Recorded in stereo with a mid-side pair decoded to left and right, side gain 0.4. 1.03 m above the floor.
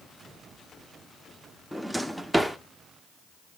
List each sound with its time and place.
1.7 s a drawer: 5° right, 1.1 m